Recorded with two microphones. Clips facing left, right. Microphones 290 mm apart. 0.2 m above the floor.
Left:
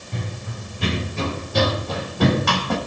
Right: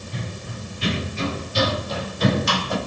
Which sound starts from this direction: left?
Running footsteps, at 0.1 s.